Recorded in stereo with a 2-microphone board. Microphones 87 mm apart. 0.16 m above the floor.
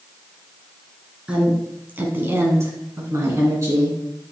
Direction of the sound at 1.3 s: 15° right (ahead or behind).